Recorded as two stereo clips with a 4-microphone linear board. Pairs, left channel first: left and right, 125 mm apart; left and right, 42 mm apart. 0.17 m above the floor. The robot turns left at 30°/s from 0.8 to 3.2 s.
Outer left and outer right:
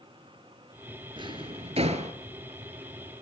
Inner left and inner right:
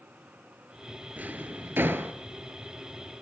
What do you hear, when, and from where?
1.2 s a drawer: 40° right (ahead or behind), 1.1 m; by 2.1 s 65° right (ahead or behind), 1.1 m